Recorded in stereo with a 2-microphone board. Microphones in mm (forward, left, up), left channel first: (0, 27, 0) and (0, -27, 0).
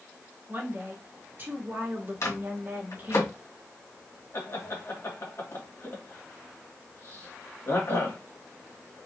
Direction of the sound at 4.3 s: 55° left (ahead or behind).